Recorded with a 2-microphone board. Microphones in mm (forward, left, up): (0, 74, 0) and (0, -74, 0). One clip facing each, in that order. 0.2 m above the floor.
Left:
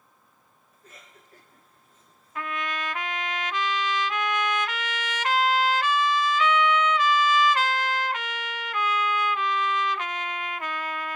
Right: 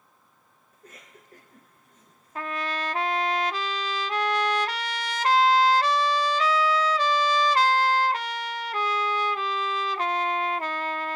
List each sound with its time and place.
0.7 s a cough: 45° right (ahead or behind), 3 m
2.4 s a trumpet: 40° right (ahead or behind), 0.5 m